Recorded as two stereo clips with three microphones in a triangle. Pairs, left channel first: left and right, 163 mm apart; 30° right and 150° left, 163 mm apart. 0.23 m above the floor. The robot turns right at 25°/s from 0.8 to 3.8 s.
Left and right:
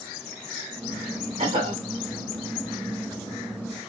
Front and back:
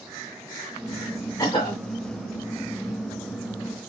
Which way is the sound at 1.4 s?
90° right.